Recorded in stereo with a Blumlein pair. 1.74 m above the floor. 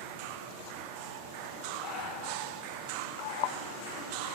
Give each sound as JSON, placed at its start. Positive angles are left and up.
{"t": 1.8, "sound": "breathing", "azimuth_deg": 35, "distance_m": 1.5}